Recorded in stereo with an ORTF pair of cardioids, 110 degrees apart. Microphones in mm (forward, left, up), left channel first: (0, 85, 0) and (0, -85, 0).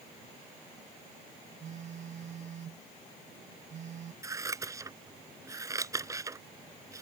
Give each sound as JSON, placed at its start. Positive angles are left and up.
{"t": 1.6, "sound": "a phone buzzing", "azimuth_deg": -45}
{"t": 4.2, "sound": "scissors", "azimuth_deg": -20}